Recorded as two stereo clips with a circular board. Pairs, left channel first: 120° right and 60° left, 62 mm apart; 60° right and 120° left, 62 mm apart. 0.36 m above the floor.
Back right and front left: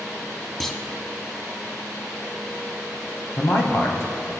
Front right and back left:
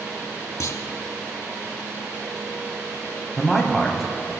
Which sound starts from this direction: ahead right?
A clunk, at 0.6 s.